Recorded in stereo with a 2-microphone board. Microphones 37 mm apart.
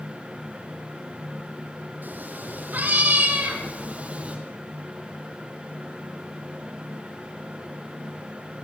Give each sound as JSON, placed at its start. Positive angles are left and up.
{"t": 2.0, "sound": "a cat meowing", "side_deg": -60, "distance_m": 5.0}